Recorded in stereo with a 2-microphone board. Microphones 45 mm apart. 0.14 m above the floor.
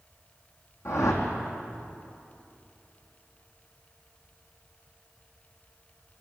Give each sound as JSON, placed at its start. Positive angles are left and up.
{"t": 0.8, "sound": "a whoosh", "side_deg": 80, "distance_m": 4.5}